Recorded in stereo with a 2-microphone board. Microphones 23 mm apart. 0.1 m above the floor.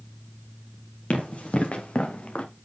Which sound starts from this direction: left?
Running footsteps, at 1.1 s.